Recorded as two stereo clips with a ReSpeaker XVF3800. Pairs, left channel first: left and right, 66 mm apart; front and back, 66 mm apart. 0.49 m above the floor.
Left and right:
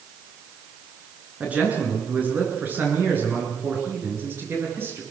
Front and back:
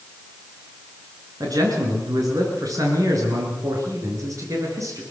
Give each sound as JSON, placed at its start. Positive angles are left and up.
{"t": 1.4, "sound": "a man speaking", "azimuth_deg": -160, "distance_m": 8.5}